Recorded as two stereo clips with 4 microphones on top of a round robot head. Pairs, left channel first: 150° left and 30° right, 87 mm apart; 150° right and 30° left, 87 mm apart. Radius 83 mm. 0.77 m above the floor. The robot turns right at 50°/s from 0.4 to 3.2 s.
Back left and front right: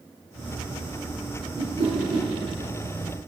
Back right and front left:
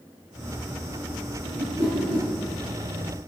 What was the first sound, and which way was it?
A whoosh, 35° right.